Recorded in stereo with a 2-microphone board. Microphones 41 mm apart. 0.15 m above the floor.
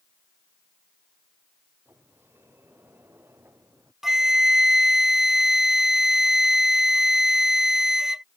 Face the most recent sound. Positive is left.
turn(degrees=-10)  # may be behind; listen again after turning